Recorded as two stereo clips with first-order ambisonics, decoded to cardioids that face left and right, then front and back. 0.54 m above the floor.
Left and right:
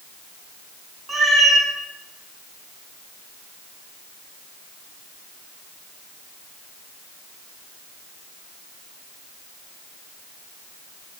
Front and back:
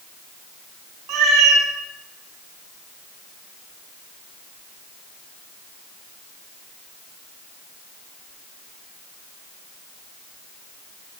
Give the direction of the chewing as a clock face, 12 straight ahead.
No chewing in this recording.